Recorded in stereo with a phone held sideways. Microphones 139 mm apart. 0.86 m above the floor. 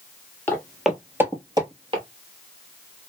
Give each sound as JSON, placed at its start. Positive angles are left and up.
{"t": 0.5, "sound": "footsteps", "side_deg": 15, "distance_m": 0.8}